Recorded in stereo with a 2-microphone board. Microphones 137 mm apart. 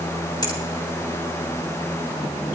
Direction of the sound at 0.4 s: 30° left (ahead or behind).